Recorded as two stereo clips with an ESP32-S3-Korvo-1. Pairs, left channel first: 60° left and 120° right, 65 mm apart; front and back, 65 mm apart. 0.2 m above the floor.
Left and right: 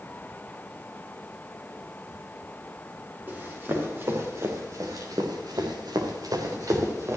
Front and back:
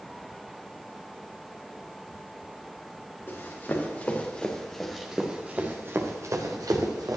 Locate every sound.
3.3 s running footsteps: 60° right, 4.5 m; by 7.2 s 165° right, 3.5 m